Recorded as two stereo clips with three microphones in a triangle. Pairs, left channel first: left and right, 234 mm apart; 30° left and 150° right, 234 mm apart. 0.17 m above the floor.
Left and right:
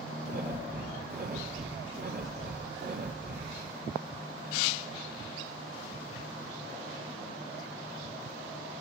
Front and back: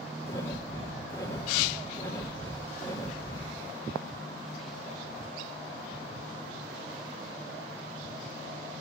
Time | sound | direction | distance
0.3 | breathing | 45° right | 2.5 m